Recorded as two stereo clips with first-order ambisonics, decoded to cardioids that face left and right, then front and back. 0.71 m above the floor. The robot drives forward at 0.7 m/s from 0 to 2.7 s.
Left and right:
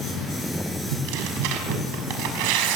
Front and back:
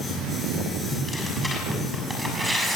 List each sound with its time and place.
0.9 s tearing paper: 85° right, 6.5 m; by 2.8 s 95° right, 6.5 m